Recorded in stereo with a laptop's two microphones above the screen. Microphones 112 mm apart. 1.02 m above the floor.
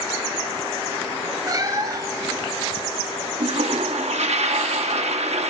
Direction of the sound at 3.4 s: 75° right (ahead or behind).